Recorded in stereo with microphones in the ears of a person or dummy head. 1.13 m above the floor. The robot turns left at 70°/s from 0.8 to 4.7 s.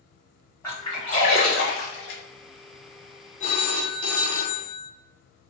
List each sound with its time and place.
0.6 s a splash: 15° left (ahead or behind), 1.3 m; by 2.2 s 60° left (ahead or behind), 1.3 m
3.4 s a phone ringing: 135° left, 0.5 m; by 4.9 s 45° left, 0.5 m